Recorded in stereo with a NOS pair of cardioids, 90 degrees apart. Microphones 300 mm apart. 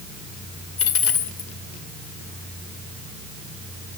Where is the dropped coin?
50° left, 1.6 m.